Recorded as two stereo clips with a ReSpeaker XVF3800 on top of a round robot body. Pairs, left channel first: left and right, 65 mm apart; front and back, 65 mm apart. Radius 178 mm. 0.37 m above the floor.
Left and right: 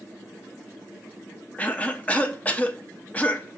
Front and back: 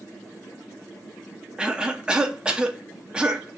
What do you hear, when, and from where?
1.6 s a cough: 125° left, 0.8 m